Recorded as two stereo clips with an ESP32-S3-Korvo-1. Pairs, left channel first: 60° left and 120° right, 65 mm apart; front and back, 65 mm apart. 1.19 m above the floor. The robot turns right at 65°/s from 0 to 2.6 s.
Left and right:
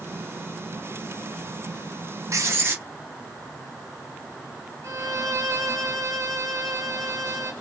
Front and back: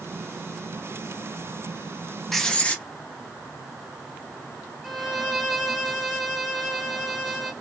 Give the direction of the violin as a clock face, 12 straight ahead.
3 o'clock.